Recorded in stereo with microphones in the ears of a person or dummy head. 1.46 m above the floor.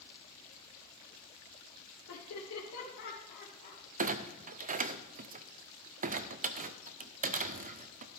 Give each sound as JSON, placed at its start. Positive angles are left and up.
{"t": 2.1, "sound": "laughter", "side_deg": 80, "distance_m": 2.0}
{"t": 4.0, "sound": "a clunk", "side_deg": -40, "distance_m": 0.5}